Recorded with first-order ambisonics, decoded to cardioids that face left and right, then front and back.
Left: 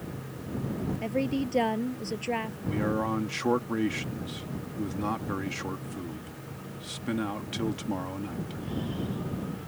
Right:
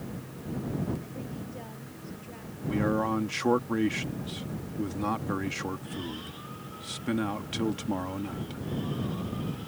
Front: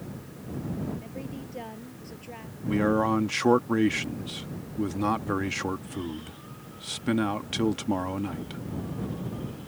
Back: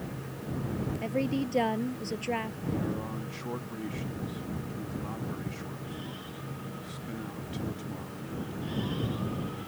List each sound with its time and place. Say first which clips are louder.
1.0 s a woman speaking: left 11 dB, back 9 dB; 125° left
2.7 s a man speaking: right 2 dB, front 14 dB; 5° right